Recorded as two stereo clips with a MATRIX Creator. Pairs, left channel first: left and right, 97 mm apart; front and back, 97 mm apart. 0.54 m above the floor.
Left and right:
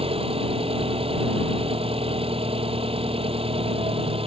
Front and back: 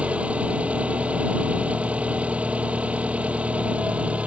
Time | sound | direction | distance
0.0 | an engine running | 105° right | ?